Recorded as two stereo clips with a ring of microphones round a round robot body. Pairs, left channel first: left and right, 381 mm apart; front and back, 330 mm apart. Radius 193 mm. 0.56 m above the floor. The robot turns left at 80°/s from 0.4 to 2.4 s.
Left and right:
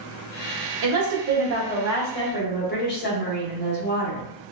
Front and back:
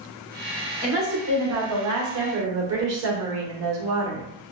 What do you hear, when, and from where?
0.8 s a woman speaking: 85° right, 2.0 m; by 4.2 s 150° left, 2.0 m